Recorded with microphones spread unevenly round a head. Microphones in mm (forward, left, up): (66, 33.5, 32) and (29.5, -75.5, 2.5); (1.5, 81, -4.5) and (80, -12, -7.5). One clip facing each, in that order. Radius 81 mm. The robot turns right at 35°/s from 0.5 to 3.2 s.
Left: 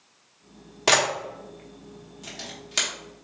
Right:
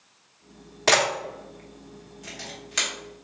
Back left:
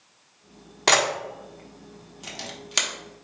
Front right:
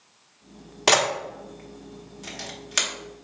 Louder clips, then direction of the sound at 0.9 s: Right 1 dB, front right 1 dB; 30° left.